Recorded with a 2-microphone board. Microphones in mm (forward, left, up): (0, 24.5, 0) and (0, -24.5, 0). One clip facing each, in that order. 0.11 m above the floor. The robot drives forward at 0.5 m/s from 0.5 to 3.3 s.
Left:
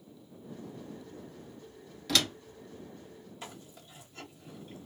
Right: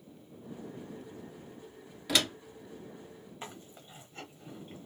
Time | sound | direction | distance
2.1 | a door slam | 10° right (ahead or behind) | 1.1 m
3.4 | chewing | 25° right (ahead or behind) | 1.5 m